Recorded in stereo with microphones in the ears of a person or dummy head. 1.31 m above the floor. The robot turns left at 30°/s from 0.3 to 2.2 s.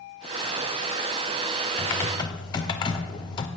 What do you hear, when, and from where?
1.8 s typing on a keyboard: 5° left (ahead or behind), 0.5 m; by 3.5 s 15° left (ahead or behind), 0.5 m